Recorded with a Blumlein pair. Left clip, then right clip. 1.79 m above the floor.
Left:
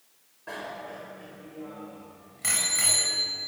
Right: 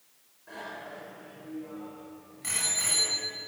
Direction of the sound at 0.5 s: 60° left.